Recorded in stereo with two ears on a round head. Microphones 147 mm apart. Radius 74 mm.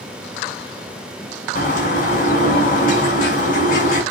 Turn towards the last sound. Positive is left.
turn(degrees=50)  # may be behind; listen again after turning